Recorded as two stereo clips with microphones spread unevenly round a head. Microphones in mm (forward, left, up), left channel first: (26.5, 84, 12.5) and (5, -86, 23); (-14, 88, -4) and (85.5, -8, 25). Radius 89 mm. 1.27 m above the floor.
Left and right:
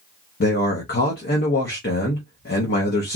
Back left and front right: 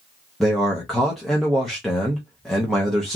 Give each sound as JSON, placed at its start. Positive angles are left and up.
{"t": 0.4, "sound": "a man speaking", "azimuth_deg": 55, "distance_m": 0.8}